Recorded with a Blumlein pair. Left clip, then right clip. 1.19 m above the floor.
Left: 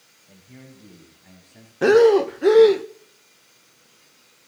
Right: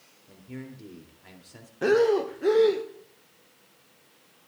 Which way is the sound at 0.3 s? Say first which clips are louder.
Right 5 dB; 20° right.